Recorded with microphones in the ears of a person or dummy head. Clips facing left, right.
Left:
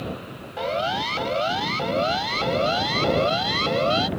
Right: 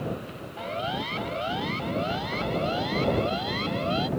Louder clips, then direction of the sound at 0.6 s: Left 6 dB; 55° left (ahead or behind).